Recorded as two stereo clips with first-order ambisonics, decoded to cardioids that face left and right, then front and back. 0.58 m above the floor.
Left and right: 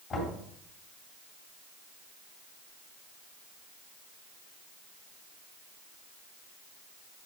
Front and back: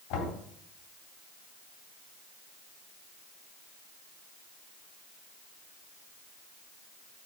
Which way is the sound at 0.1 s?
15° left.